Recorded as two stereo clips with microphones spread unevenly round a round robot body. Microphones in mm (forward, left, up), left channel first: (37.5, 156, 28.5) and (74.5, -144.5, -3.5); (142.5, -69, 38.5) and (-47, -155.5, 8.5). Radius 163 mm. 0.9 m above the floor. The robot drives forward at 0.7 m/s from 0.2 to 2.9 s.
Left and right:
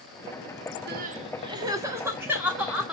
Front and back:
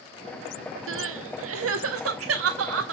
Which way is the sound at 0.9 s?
140° right.